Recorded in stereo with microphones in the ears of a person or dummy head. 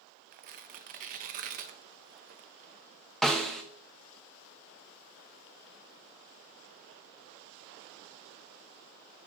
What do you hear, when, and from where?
0.3 s tearing paper: 40° right (ahead or behind), 0.5 m
3.2 s a snare drum: centre (ahead or behind), 0.6 m